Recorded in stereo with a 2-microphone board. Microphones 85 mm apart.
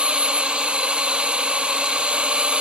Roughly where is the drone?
Centre.